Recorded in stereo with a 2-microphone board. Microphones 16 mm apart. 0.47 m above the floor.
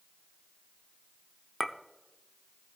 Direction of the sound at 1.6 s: 15° left (ahead or behind).